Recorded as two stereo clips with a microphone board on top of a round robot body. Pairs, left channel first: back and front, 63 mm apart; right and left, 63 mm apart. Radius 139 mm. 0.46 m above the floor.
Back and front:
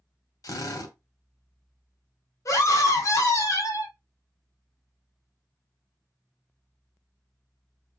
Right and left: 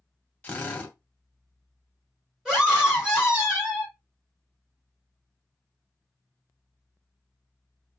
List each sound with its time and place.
0.4 s a drill: 160° right, 1.0 m
2.5 s a scream: 170° left, 1.3 m